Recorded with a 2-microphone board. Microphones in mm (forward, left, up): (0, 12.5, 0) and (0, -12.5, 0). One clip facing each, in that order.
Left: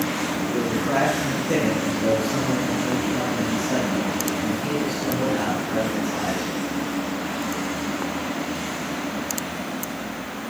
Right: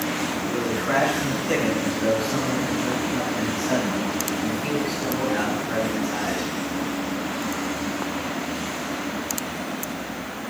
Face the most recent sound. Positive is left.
turn(degrees=-60)  # may be behind; listen again after turning